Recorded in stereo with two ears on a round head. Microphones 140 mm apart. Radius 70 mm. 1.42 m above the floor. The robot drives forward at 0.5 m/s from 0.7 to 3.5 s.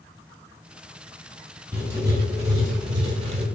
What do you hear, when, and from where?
1.7 s writing: 15° right (ahead or behind), 1.2 m; by 3.5 s 45° right (ahead or behind), 0.5 m